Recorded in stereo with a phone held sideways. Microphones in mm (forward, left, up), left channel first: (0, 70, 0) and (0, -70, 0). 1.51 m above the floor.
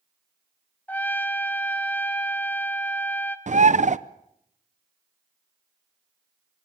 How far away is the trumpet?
About 1.1 m.